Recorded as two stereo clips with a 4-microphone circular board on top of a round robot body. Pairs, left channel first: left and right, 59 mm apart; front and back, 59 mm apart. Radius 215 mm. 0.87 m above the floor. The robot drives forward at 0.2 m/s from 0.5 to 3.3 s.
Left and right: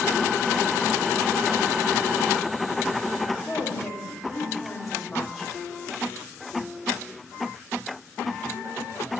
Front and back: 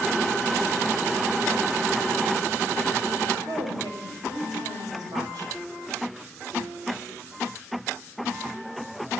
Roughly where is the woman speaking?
Behind.